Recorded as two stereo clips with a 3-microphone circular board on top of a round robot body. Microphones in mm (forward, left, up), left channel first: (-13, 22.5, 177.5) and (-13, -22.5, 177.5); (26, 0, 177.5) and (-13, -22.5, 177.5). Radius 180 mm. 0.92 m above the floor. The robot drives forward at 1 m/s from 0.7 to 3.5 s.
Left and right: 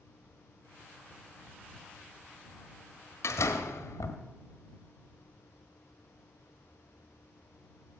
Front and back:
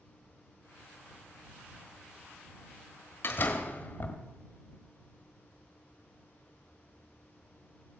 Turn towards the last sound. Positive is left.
turn(degrees=85)